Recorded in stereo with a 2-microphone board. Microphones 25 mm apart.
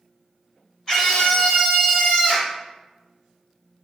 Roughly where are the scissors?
I don't hear scissors.